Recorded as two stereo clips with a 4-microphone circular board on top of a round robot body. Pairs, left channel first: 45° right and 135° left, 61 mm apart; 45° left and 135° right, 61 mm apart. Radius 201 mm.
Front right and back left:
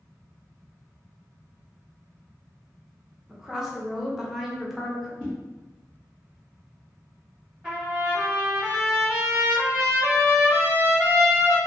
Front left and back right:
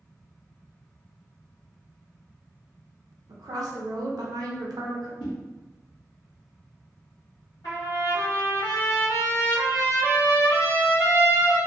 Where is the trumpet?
55° left, 1.0 m.